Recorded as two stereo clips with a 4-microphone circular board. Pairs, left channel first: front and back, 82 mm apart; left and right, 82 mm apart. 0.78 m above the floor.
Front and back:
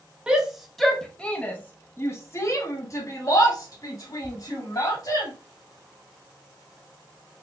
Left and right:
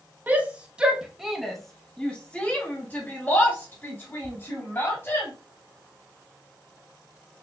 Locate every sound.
0.3 s a shout: 120° right, 0.9 m; by 5.3 s 30° left, 2.5 m